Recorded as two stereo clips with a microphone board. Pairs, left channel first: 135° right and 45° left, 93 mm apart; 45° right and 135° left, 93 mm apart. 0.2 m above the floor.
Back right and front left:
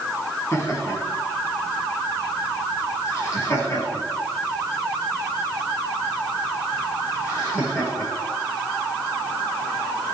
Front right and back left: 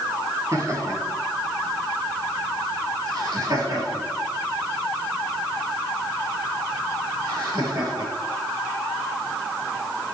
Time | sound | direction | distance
0.5 | laughter | straight behind | 2.5 m